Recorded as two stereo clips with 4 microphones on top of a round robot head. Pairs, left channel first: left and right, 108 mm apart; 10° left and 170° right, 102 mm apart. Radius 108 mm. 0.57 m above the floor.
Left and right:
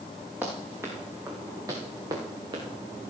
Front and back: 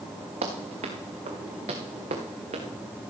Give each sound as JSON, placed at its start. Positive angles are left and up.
{"t": 0.4, "sound": "running footsteps", "azimuth_deg": -170, "distance_m": 3.0}